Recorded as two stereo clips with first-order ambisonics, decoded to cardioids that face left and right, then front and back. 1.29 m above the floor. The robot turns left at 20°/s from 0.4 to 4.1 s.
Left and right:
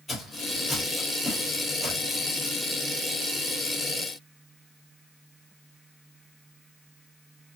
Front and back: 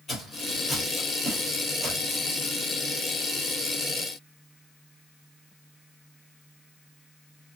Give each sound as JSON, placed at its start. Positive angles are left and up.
{"t": 0.1, "sound": "footsteps", "azimuth_deg": 15, "distance_m": 1.3}